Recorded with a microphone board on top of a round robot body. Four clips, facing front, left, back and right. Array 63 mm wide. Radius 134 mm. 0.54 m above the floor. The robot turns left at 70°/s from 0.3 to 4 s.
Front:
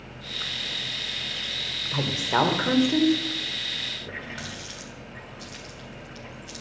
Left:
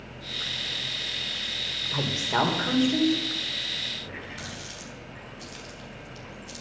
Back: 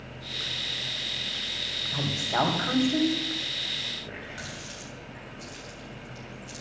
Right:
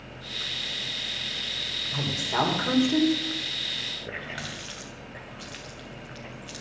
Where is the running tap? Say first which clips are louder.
Right 3 dB, front 3 dB; 80° right, 2.5 m.